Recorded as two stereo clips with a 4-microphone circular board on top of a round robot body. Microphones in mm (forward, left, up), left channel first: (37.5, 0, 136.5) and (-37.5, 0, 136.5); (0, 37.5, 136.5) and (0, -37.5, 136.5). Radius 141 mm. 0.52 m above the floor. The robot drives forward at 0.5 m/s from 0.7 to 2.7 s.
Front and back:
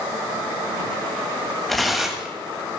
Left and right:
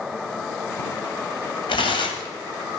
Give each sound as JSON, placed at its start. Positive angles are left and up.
{"t": 1.7, "sound": "tearing paper", "azimuth_deg": 90, "distance_m": 1.7}